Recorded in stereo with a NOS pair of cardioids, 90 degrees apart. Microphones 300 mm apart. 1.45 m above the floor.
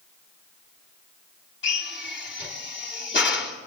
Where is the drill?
40° left, 2.5 m.